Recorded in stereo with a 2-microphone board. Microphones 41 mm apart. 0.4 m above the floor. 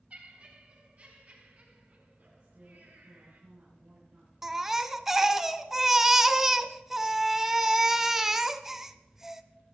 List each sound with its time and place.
0.1 s laughter: 35° right (ahead or behind), 4 m; by 3.4 s 55° right (ahead or behind), 5.5 m
2.4 s a woman speaking: 45° right (ahead or behind), 5 m
4.4 s a baby crying: 10° right (ahead or behind), 0.5 m